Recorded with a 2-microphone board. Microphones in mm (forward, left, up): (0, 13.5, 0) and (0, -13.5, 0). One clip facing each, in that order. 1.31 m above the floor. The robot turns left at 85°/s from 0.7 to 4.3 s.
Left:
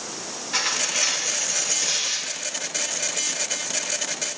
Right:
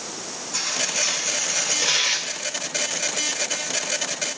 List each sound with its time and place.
0.5 s tearing paper: 60° left, 3 m; by 2.3 s 70° right, 3 m